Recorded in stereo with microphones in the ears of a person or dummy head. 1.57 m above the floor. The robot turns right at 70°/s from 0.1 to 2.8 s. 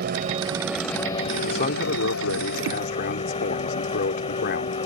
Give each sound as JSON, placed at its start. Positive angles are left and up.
{"t": 0.0, "sound": "a vehicle", "azimuth_deg": -50}
{"t": 1.4, "sound": "a man speaking", "azimuth_deg": 25}